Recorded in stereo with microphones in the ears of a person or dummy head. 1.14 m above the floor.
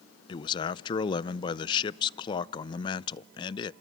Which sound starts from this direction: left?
A man speaking, at 0.3 s.